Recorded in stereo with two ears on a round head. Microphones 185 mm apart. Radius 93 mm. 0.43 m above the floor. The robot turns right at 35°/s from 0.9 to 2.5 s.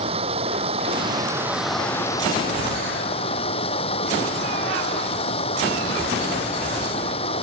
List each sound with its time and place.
0.0 s running water: 30° right; by 7.4 s 30° left